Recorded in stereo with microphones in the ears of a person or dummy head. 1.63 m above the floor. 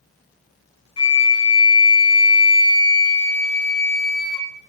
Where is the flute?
15° left (ahead or behind), 1.1 m.